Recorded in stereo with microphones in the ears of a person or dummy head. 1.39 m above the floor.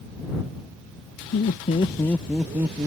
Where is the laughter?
45° left (ahead or behind); by 2.9 s 20° right (ahead or behind).